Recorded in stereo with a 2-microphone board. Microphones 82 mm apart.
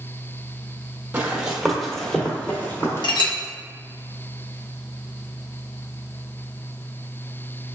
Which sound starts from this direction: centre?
Running footsteps, at 1.1 s.